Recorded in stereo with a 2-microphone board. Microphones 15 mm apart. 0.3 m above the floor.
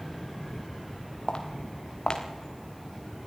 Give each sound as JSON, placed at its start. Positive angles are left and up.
{"t": 1.3, "sound": "footsteps", "side_deg": 70, "distance_m": 3.0}